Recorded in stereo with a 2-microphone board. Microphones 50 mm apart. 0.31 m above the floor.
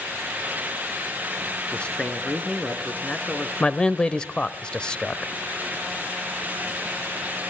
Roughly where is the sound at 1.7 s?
Left.